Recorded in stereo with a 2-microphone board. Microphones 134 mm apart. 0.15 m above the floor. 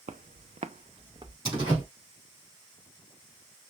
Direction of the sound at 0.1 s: 65° right (ahead or behind).